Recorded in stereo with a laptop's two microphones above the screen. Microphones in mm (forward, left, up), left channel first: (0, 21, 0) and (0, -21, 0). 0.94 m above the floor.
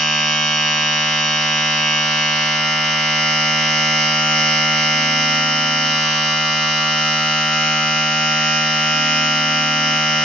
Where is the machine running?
10° left (ahead or behind), 0.8 m.